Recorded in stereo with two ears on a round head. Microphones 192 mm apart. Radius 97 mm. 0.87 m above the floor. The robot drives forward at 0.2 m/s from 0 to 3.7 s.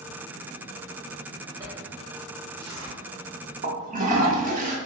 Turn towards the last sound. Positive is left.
turn(degrees=-35)  # may be behind; listen again after turning